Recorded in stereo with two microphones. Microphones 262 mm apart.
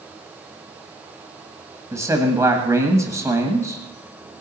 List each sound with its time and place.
1.9 s a man speaking: 10° right (ahead or behind), 1.5 m